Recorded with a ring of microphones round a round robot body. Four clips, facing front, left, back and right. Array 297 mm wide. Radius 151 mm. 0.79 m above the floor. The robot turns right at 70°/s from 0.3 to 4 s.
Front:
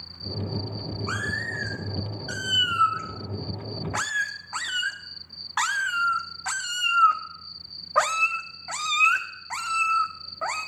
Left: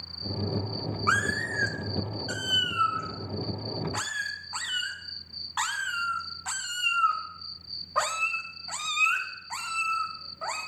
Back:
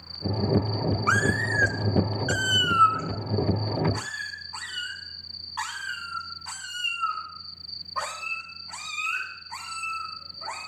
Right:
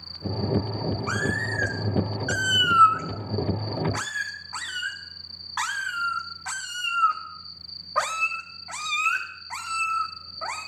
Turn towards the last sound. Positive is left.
turn(degrees=-10)